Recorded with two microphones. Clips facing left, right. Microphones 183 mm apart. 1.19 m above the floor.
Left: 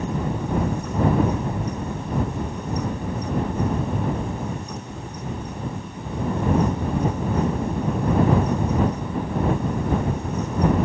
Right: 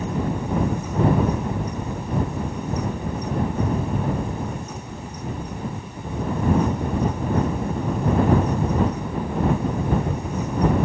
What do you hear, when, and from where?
Only background noise.